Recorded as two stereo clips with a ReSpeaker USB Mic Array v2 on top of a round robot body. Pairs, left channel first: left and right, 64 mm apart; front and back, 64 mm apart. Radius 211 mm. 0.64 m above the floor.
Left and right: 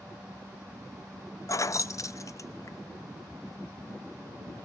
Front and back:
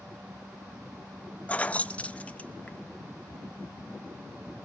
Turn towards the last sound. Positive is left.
turn(degrees=65)